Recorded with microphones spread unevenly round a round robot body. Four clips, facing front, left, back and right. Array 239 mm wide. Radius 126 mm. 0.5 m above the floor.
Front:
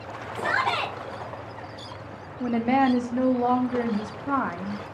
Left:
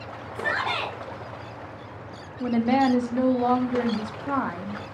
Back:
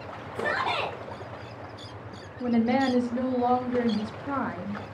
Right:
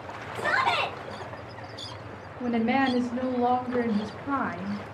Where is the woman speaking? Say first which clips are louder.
Left 3 dB, front 2 dB; 20° left, 0.7 m.